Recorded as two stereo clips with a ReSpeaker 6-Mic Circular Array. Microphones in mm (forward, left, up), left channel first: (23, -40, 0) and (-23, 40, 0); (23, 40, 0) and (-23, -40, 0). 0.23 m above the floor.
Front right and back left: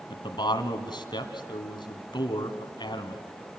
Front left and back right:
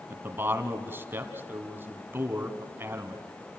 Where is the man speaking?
60° right, 1.7 m.